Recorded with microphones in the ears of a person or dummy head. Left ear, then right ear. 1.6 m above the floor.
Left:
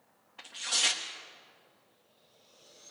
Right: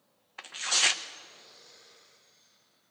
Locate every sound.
0.4 s tearing paper: 55° right (ahead or behind), 0.7 m